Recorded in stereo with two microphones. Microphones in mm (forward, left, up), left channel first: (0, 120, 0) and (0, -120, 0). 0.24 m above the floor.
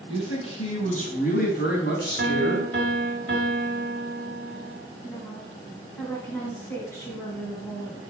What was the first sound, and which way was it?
A man speaking, 20° left (ahead or behind).